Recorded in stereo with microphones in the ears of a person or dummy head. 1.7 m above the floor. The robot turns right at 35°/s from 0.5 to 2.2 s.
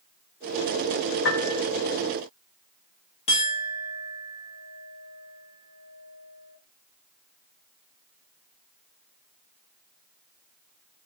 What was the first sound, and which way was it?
A piano, 70° left (ahead or behind).